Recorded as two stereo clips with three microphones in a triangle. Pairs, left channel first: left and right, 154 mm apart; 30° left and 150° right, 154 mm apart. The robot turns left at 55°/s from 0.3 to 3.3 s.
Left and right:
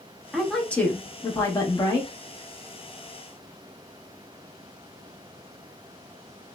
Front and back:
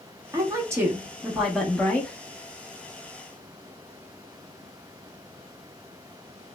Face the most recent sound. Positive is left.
turn(degrees=20)